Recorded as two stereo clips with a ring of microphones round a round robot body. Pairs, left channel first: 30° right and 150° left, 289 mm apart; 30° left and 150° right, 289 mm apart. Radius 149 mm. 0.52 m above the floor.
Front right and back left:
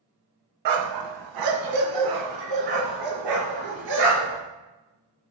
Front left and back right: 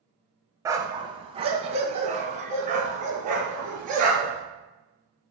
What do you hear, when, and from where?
0.7 s a dog barking: 130° left, 0.7 m; by 4.4 s 145° left, 3 m